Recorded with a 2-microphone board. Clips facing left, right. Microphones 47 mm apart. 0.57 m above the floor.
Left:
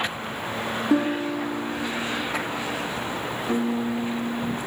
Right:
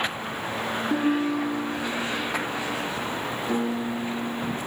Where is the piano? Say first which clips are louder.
Left 3 dB; 10° left (ahead or behind), 6 m.